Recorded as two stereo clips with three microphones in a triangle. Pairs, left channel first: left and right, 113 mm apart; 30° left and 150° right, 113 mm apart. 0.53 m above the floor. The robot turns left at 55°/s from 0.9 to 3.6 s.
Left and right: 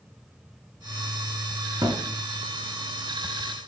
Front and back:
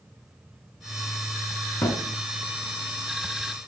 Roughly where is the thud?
Ahead right.